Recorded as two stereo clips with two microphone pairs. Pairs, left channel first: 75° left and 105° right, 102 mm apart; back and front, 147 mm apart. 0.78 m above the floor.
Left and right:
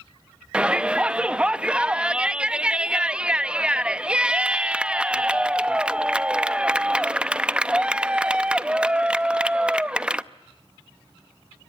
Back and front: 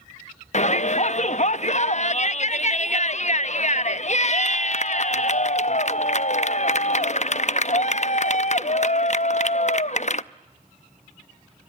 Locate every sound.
0.5 s a shout: 175° right, 0.5 m